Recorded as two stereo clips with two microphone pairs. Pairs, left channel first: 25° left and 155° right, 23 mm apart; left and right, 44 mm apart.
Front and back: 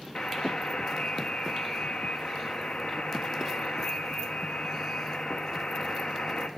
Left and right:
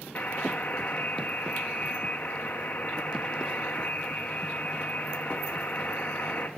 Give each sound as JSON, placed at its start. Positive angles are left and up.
{"t": 0.1, "sound": "a buzzer", "azimuth_deg": 50, "distance_m": 0.7}